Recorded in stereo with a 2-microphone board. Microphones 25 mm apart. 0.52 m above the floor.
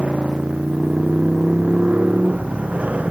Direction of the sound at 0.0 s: 65° right (ahead or behind).